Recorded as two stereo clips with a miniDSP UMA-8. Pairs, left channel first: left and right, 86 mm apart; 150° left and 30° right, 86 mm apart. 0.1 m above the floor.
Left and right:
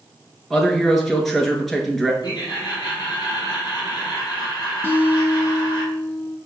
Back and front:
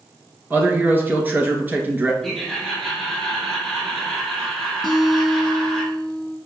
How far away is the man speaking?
About 1.1 m.